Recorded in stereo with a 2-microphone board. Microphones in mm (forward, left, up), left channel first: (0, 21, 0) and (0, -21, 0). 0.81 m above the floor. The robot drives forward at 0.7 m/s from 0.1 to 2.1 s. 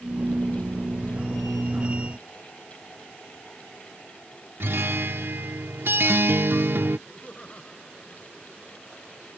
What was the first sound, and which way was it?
A guitar, 65° right (ahead or behind).